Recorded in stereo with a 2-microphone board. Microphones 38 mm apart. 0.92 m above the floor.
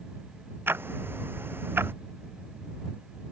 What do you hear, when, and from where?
0.7 s ticking: 65° right (ahead or behind)